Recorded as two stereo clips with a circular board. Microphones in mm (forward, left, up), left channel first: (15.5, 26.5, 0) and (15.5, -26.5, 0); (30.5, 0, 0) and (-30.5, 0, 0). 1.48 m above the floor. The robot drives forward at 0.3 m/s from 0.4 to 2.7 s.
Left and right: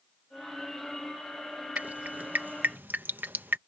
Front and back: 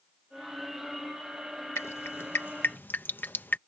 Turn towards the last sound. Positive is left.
turn(degrees=-50)